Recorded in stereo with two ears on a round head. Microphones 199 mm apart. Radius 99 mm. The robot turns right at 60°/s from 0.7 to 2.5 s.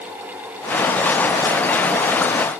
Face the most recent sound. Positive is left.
No sound to turn to.